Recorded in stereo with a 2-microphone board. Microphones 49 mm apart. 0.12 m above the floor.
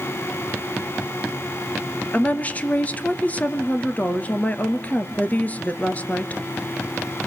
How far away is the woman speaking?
About 2 m.